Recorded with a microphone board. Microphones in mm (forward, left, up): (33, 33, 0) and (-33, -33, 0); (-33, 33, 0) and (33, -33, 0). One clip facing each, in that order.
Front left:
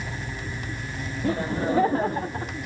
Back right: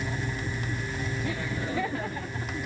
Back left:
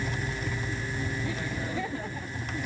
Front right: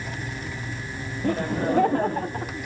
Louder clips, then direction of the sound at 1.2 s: Front left 12 dB, front right 9 dB; 5° right.